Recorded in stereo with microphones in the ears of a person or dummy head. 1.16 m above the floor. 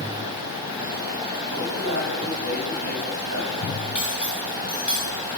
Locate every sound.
1.5 s a man speaking: 85° right, 6.5 m; by 3.8 s 70° right (ahead or behind), 6 m
4.0 s cutlery clinking: 5° right (ahead or behind), 2 m